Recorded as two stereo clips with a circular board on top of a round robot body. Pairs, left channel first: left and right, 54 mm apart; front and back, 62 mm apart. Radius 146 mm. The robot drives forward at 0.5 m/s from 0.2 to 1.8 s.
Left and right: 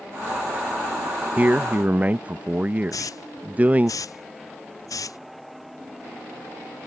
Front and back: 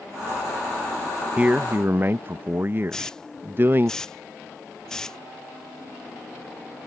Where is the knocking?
No knocking in this recording.